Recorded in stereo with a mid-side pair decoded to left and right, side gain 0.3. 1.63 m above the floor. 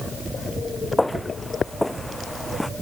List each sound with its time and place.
1.0 s footsteps: 10° left; by 2.7 s straight ahead